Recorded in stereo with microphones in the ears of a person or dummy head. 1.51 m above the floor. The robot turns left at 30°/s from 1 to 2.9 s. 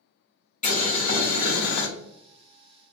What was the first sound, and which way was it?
Boiling, 40° left (ahead or behind).